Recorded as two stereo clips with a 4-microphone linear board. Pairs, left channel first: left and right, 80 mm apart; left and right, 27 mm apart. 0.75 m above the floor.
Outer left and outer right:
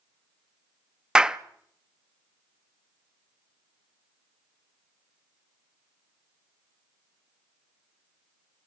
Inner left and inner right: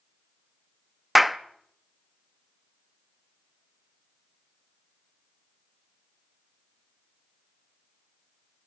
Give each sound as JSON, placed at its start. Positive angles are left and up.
{"t": 1.1, "sound": "a clap", "side_deg": -10, "distance_m": 0.7}